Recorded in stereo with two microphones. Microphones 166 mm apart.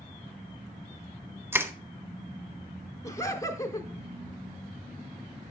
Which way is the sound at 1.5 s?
15° right (ahead or behind).